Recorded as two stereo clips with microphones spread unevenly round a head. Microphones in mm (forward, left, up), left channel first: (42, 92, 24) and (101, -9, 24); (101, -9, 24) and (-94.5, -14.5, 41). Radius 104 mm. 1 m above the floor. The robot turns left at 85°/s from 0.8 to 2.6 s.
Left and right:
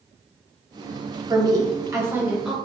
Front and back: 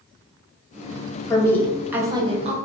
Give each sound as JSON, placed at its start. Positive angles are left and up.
{"t": 1.3, "sound": "a woman speaking", "azimuth_deg": -40, "distance_m": 0.7}